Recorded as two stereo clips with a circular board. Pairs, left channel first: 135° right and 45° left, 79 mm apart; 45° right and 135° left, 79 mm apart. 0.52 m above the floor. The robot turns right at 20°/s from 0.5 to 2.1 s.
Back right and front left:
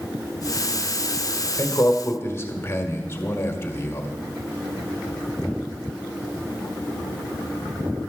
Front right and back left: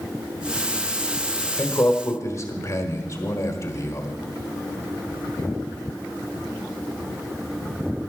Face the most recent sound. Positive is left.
turn(degrees=-85)